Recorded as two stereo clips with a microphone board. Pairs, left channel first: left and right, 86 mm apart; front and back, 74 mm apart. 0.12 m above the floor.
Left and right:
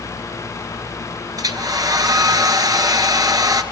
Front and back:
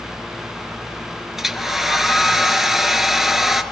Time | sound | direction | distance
1.4 | a hair dryer | 95° right | 1.3 m